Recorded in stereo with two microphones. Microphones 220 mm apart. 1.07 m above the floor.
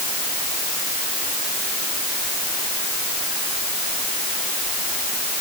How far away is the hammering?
No hammering in this recording.